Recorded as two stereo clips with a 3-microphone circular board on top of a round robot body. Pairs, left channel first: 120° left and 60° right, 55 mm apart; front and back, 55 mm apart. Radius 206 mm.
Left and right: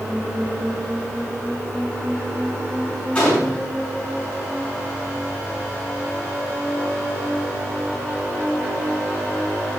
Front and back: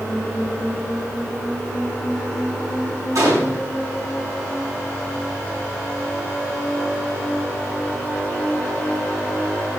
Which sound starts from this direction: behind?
A gunshot, at 3.1 s.